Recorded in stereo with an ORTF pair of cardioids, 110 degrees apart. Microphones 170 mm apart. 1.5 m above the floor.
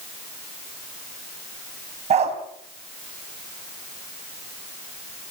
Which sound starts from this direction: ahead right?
A dog barking, at 2.1 s.